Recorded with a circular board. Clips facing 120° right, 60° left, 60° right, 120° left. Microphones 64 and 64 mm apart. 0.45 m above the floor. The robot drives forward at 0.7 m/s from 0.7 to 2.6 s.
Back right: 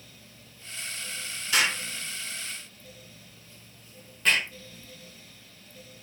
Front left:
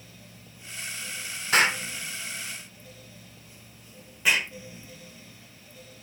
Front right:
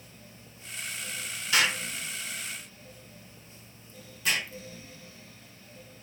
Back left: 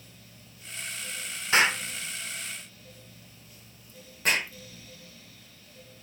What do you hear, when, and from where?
1.5 s an explosion: 80° left, 0.9 m; by 4.5 s 135° left, 1.1 m